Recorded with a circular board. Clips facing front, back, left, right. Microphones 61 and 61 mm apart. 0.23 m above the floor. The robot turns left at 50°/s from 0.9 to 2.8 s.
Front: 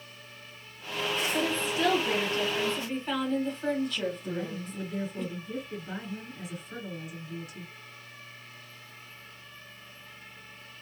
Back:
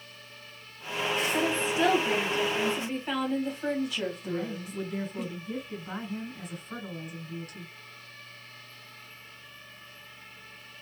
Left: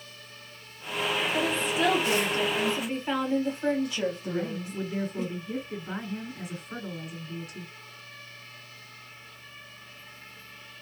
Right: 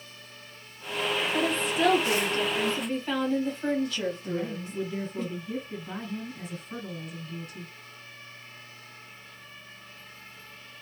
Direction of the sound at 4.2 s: 170° left.